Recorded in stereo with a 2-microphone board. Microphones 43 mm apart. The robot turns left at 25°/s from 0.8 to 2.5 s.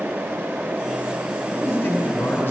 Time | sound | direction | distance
1.4 | a man speaking | 40° left (ahead or behind) | 1.3 m